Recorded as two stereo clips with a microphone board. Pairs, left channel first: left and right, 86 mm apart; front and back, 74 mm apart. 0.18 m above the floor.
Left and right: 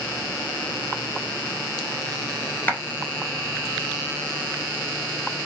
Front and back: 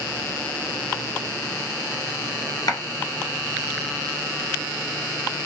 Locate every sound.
2.7 s a clap: 25° left, 1.9 m